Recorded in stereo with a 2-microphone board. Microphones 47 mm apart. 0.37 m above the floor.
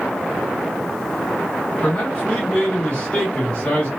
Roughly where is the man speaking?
Left.